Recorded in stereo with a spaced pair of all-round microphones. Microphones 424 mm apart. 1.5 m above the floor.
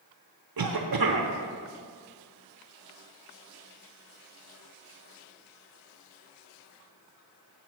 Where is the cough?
55° right (ahead or behind), 0.7 m.